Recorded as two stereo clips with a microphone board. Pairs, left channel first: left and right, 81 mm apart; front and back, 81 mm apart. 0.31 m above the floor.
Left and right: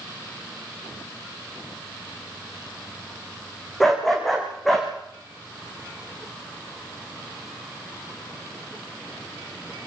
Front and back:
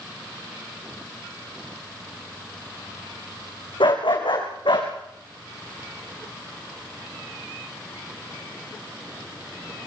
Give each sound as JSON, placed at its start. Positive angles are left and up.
{"t": 3.8, "sound": "a dog barking", "azimuth_deg": 5, "distance_m": 6.5}